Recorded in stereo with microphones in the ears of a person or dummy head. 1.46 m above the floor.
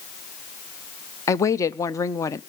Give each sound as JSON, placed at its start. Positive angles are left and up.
{"t": 1.3, "sound": "a woman speaking", "side_deg": 20, "distance_m": 0.6}